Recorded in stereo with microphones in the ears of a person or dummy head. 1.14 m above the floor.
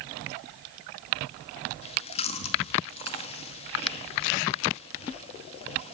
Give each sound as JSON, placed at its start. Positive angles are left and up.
{"t": 1.8, "sound": "chewing", "side_deg": 35, "distance_m": 2.0}